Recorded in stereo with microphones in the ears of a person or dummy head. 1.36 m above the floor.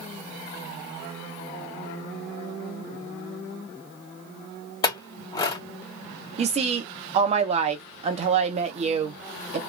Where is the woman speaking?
35° right (ahead or behind), 0.6 m.